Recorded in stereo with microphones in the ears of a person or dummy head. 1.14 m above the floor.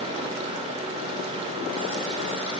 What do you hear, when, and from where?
0.0 s a fan: 30° right (ahead or behind), 2.5 m